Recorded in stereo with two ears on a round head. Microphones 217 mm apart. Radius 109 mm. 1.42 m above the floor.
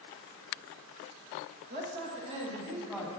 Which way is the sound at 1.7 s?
45° right (ahead or behind).